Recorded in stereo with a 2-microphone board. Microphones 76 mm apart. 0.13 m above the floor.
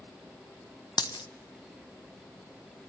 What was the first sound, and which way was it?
A dropped coin, 65° left (ahead or behind).